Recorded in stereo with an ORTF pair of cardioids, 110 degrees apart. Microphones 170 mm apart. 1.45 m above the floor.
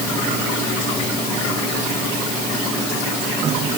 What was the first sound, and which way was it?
Only background noise.